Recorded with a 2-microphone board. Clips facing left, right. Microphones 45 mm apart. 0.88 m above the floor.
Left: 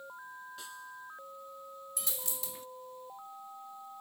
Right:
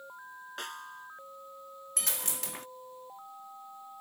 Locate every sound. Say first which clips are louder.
0.6 s a snare drum: right 4 dB; 65° right (ahead or behind)
2.0 s a dropped coin: right 7 dB; 75° right (ahead or behind)